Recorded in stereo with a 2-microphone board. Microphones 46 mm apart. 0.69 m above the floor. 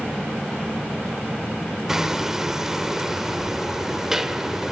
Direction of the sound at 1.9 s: 10° right (ahead or behind).